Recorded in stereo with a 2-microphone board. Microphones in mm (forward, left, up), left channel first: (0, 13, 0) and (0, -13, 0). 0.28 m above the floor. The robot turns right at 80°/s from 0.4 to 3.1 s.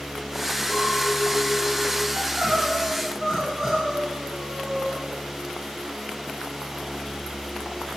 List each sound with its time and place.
0.7 s a clink: 140° left, 4 m; by 2.0 s 110° right, 4 m
2.1 s crying: 95° right, 2 m; by 5.0 s 20° right, 2 m